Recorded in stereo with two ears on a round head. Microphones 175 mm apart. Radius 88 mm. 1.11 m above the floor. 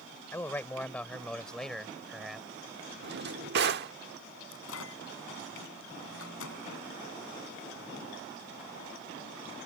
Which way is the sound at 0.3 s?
10° left (ahead or behind).